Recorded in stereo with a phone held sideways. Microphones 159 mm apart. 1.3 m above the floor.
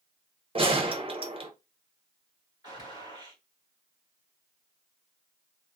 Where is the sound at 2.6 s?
25° right (ahead or behind), 1.7 m.